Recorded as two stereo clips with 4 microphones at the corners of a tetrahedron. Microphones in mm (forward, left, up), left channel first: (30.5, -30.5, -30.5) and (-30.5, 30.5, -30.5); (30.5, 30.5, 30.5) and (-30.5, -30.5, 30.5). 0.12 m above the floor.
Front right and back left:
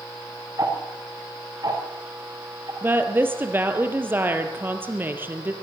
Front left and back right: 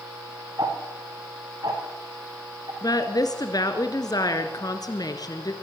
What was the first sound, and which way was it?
Ticking, 175° right.